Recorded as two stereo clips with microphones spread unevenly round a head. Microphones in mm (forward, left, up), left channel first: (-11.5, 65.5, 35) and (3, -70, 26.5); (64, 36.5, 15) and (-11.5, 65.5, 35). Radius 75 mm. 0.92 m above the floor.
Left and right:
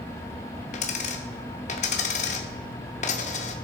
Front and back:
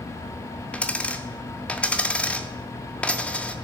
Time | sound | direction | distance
0.7 | a dropped coin | 60° left | 0.8 m